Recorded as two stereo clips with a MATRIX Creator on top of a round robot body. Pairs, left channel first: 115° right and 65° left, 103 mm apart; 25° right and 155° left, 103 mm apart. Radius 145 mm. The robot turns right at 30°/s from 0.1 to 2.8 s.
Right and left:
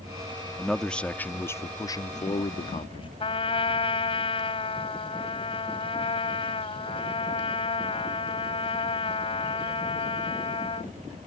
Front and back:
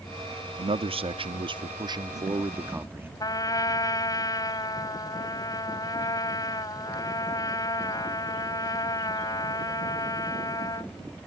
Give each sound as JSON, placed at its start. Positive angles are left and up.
{"t": 0.6, "sound": "a man speaking", "azimuth_deg": 155}
{"t": 3.2, "sound": "a trumpet", "azimuth_deg": -80}